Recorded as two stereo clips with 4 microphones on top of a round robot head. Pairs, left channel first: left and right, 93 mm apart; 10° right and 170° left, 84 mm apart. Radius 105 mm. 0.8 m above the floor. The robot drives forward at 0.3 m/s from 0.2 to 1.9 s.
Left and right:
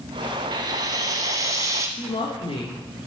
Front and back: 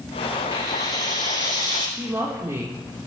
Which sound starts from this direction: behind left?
A woman speaking, at 2.0 s.